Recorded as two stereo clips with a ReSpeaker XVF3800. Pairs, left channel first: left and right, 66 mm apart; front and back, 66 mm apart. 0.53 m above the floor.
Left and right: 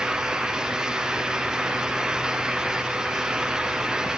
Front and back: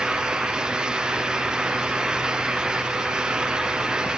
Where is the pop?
I don't hear a pop.